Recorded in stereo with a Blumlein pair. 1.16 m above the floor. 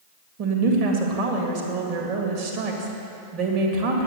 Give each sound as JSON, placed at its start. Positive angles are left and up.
{"t": 0.4, "sound": "a woman speaking", "azimuth_deg": -40, "distance_m": 2.0}